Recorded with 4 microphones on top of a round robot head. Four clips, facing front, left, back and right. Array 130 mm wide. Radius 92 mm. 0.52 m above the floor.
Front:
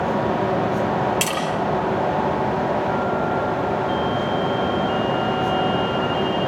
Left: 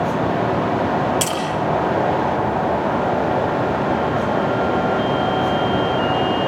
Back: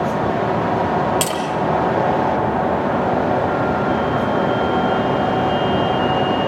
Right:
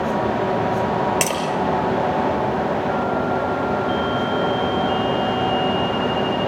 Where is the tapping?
125° right, 6.5 m.